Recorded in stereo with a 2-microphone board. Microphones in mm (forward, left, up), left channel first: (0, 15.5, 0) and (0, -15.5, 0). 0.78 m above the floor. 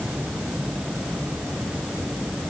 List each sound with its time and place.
Only background noise.